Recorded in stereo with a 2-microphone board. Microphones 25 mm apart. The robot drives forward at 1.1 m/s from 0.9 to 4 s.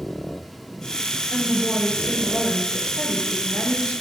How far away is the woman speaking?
About 4 m.